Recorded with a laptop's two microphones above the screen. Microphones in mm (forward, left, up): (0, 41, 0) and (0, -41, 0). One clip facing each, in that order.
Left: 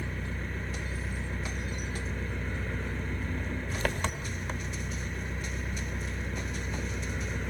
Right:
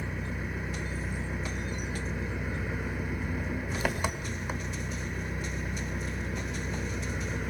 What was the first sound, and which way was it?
An engine running, 10° right (ahead or behind).